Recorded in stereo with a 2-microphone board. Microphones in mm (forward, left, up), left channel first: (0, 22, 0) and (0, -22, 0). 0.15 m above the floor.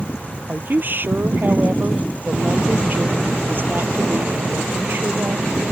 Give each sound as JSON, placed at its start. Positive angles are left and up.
{"t": 0.5, "sound": "a woman speaking", "side_deg": -50}